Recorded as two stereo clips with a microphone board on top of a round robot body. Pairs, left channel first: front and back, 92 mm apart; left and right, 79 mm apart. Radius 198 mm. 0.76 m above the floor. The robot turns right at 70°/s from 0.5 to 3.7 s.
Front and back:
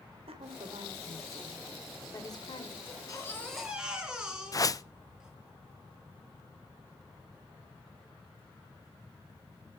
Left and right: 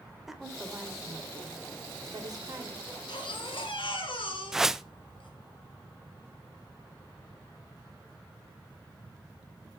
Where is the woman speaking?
175° right, 3 m; by 2.7 s 20° right, 3 m.